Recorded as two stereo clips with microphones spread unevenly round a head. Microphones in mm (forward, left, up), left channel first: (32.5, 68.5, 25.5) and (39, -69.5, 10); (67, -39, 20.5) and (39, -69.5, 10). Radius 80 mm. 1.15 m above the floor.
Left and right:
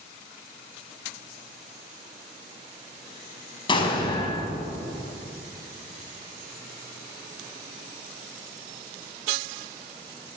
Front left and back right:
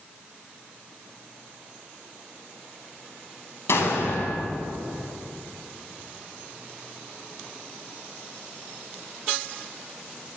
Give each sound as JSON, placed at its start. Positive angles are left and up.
{"t": 3.7, "sound": "an explosion", "azimuth_deg": 40, "distance_m": 5.0}